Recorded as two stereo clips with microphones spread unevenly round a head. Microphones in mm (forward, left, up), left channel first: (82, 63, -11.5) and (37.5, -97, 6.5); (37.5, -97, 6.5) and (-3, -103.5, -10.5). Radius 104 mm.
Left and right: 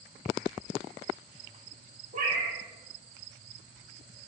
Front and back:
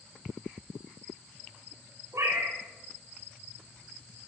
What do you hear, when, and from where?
2.1 s a cat meowing: 160° right, 2.5 m